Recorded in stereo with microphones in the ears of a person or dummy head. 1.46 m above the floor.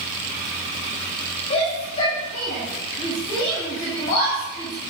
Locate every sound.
1.5 s a shout: 30° left (ahead or behind), 7.5 m